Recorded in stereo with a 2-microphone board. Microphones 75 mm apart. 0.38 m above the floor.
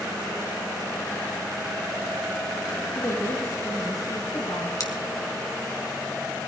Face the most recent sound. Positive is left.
turn(degrees=50)  # may be behind; listen again after turning